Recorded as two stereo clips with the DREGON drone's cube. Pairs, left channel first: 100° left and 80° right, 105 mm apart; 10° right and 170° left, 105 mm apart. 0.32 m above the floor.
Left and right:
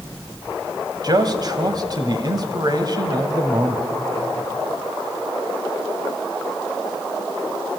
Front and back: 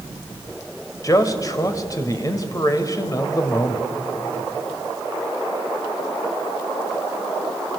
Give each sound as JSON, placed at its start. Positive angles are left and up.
{"t": 1.0, "sound": "a man speaking", "azimuth_deg": -55, "distance_m": 1.5}